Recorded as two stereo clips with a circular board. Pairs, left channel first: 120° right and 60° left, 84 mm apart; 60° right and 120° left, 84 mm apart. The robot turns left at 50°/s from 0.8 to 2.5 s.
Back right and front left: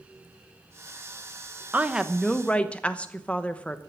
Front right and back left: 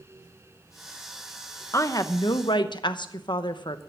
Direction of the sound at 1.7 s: 5° right.